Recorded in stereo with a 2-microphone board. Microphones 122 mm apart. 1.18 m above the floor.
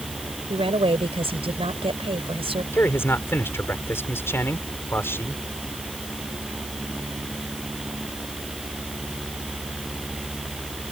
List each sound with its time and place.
0.5 s a woman speaking: 50° right (ahead or behind)
2.7 s a man speaking: 20° left (ahead or behind)